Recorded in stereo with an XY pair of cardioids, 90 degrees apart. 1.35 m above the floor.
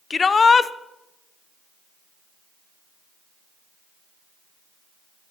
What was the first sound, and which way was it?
A shout, 40° left.